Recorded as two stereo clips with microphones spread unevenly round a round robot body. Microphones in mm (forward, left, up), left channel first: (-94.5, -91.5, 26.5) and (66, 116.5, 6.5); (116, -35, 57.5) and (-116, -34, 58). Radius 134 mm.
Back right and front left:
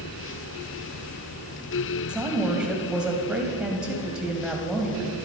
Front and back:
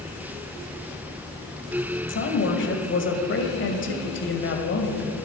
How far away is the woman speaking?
About 2 m.